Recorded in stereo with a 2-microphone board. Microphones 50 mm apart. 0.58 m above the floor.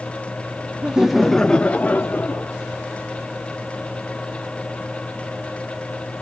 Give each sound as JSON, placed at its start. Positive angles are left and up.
{"t": 0.8, "sound": "laughter", "side_deg": -20, "distance_m": 0.6}